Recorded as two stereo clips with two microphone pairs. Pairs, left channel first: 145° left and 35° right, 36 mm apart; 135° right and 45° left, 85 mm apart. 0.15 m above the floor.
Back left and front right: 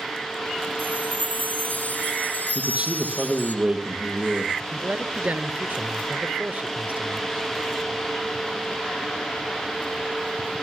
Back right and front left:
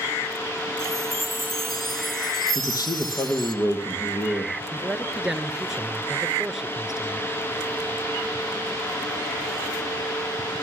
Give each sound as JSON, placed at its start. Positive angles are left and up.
{"t": 0.8, "sound": "a chime", "azimuth_deg": 130, "distance_m": 2.5}
{"t": 2.5, "sound": "a man speaking", "azimuth_deg": -95, "distance_m": 3.5}
{"t": 4.7, "sound": "a man speaking", "azimuth_deg": -40, "distance_m": 1.9}